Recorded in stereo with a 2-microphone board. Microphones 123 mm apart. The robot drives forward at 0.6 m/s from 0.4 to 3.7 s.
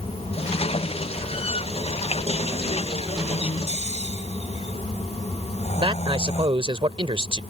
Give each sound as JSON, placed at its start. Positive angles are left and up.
{"t": 3.7, "sound": "snoring", "side_deg": 60}
{"t": 5.8, "sound": "a man speaking", "side_deg": -45}